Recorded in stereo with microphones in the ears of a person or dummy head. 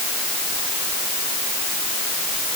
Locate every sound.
Only background noise.